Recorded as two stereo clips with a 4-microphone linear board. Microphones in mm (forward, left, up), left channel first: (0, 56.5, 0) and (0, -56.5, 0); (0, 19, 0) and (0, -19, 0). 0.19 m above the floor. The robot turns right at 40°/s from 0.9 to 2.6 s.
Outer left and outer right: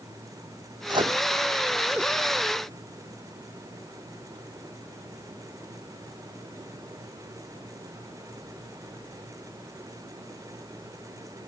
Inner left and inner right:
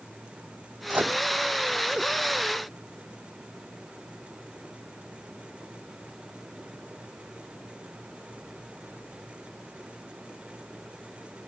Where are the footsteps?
I don't hear footsteps.